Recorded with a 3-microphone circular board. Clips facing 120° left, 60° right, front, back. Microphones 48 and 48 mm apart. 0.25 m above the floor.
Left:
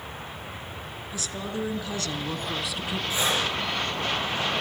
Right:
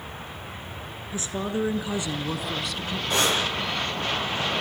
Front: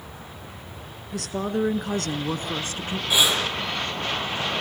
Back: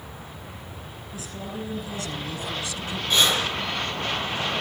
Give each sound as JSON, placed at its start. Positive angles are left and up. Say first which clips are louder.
{"t": 1.1, "sound": "a woman speaking", "louder": "right 5 dB, front 9 dB", "azimuth_deg": 0, "distance_m": 3.0}
{"t": 3.1, "sound": "breathing", "louder": "right 3 dB, even", "azimuth_deg": -80, "distance_m": 7.5}